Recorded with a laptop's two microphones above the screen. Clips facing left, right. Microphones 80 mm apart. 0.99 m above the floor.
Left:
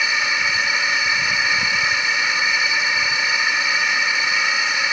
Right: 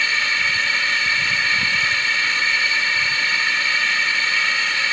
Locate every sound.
0.0 s a drone: 15° left (ahead or behind)